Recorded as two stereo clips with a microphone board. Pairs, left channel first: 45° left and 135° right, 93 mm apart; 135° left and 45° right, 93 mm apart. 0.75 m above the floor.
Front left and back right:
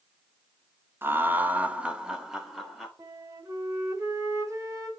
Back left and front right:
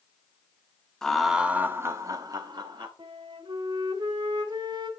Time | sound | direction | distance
1.0 | laughter | 150° right | 1.0 m
3.0 | a flute | 80° right | 2 m